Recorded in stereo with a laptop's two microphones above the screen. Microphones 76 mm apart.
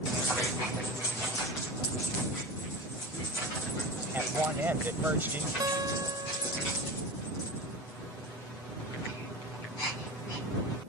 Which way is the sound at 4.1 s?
25° right (ahead or behind).